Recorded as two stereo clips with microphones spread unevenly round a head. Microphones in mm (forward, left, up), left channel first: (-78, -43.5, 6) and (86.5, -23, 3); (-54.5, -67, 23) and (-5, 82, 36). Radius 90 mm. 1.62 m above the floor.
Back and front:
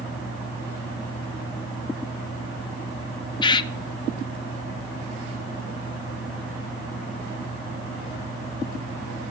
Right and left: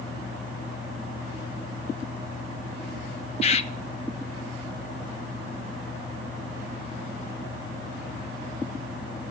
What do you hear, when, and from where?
3.4 s a bird: 135° right, 0.6 m